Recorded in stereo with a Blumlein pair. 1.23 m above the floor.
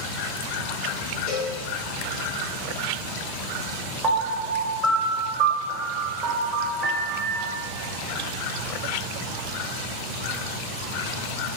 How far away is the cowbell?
About 1.0 m.